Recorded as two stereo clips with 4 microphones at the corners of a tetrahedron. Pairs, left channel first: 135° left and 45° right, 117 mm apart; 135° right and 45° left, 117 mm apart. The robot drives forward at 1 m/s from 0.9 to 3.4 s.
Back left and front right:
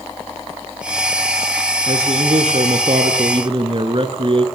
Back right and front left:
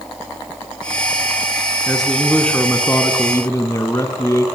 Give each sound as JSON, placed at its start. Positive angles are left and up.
{"t": 1.9, "sound": "a man speaking", "azimuth_deg": -45, "distance_m": 3.0}